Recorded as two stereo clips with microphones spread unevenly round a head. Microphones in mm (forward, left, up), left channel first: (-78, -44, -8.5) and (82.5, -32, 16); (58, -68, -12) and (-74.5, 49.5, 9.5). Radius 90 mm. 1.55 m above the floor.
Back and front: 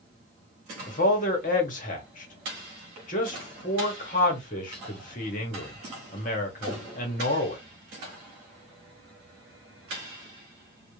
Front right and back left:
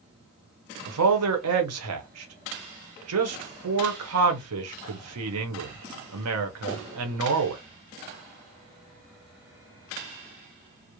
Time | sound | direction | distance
0.9 | a man speaking | 130° left | 0.8 m